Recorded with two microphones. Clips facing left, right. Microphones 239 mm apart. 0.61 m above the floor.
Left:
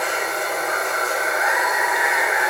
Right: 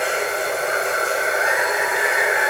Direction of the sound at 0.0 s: 30° right (ahead or behind).